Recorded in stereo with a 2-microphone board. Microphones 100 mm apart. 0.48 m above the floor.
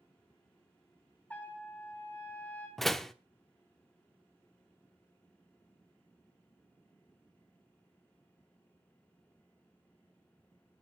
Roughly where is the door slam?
Centre.